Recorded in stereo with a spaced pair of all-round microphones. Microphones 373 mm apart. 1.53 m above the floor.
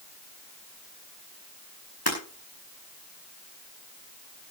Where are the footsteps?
I don't hear footsteps.